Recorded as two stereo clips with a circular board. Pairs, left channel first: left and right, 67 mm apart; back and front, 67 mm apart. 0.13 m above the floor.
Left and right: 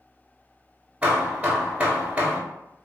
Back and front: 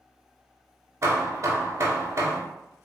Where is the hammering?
25° right, 0.7 m.